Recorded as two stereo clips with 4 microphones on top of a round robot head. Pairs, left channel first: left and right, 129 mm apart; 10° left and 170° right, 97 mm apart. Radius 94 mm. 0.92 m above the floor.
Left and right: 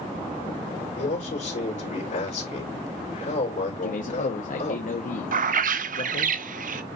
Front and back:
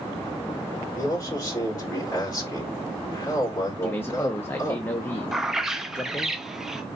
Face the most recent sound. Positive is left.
turn(degrees=-85)